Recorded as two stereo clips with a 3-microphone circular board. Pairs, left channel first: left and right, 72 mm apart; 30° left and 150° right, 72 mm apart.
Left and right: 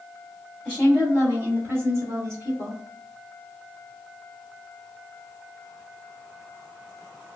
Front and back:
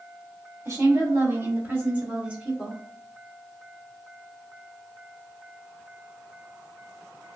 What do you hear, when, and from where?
0.7 s a woman speaking: 160° right, 1.5 m; by 2.8 s 70° right, 1.4 m